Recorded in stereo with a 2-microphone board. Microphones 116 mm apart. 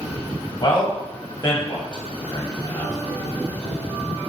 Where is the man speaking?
40° left (ahead or behind), 1.4 m.